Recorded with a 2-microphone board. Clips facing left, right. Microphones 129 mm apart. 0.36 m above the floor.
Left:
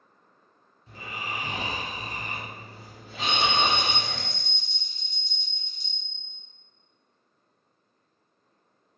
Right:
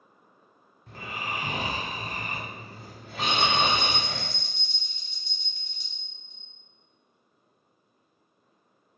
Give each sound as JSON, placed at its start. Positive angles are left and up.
{"t": 0.9, "sound": "snoring", "side_deg": -65, "distance_m": 1.3}
{"t": 3.2, "sound": "a bell", "side_deg": -70, "distance_m": 0.9}